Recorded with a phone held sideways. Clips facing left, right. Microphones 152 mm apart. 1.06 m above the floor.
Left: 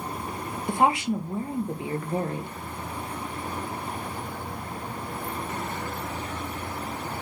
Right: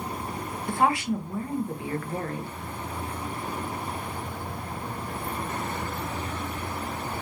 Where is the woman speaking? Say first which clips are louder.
Left 1 dB; 20° left (ahead or behind), 0.5 m.